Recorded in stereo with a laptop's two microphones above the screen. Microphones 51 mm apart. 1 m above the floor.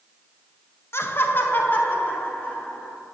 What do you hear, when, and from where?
0.9 s laughter: 55° left (ahead or behind), 1.0 m; by 3.0 s 25° left (ahead or behind), 3 m